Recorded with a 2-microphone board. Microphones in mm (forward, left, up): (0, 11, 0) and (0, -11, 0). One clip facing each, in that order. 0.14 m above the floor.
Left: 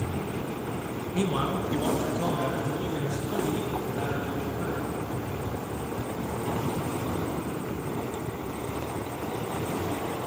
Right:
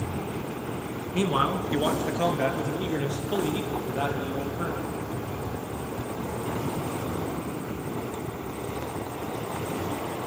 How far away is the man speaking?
About 1.5 m.